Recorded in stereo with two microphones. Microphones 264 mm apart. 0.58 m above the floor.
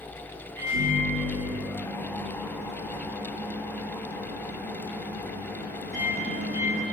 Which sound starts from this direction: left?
A microwave, at 0.6 s.